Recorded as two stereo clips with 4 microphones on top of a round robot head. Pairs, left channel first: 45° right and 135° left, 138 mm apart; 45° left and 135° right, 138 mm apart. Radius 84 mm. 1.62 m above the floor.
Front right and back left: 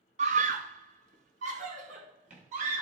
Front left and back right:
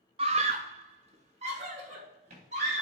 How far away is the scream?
About 0.5 m.